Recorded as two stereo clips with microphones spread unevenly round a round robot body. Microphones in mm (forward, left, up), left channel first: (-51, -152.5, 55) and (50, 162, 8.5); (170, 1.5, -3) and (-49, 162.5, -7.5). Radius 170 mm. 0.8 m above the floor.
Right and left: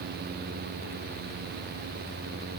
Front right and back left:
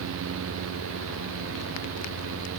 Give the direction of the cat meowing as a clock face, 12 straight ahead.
No cat meowing in this recording.